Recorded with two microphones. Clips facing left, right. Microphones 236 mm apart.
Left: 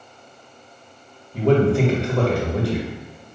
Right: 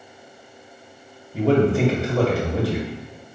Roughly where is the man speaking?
Centre.